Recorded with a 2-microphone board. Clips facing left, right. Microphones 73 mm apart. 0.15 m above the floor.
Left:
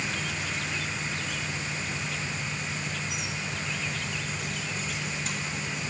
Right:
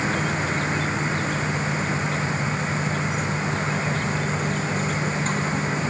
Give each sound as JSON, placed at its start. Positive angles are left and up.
{"t": 0.0, "sound": "an insect", "side_deg": -40}